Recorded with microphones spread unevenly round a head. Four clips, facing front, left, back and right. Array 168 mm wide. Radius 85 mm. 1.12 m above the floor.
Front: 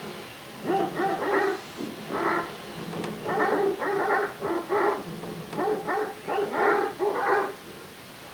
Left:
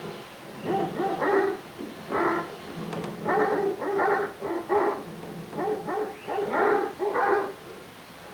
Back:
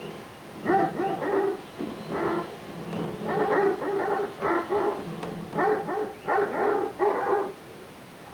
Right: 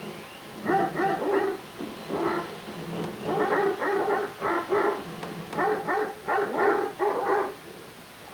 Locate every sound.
Only background noise.